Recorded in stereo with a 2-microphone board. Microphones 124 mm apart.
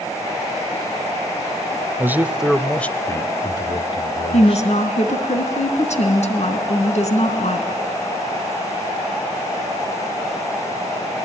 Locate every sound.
2.0 s a man speaking: 20° right (ahead or behind), 0.9 m; by 4.7 s 55° left (ahead or behind), 1.4 m
4.3 s a woman speaking: 65° left (ahead or behind), 3.5 m